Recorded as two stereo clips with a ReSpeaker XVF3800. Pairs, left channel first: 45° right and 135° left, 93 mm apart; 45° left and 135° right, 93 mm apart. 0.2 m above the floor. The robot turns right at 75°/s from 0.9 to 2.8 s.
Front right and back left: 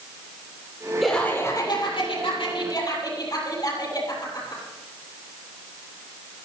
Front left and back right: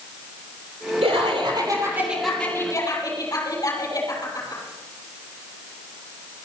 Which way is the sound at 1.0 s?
135° right.